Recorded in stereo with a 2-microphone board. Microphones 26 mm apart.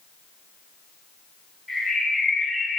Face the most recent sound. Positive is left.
turn(degrees=-5)  # may be behind; listen again after turning